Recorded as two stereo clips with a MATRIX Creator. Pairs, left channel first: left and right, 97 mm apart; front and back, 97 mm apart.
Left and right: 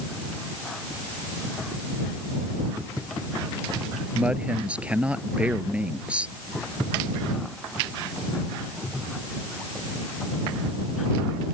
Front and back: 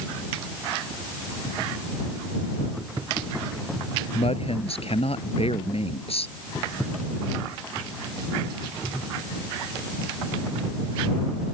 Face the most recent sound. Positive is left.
turn(degrees=-10)